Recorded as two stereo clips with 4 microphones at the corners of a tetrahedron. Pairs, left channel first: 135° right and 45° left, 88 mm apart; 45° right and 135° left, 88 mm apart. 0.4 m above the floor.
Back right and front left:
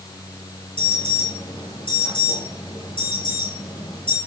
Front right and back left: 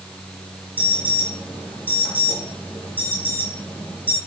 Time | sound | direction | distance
0.8 | an alarm | 115° right | 9.5 m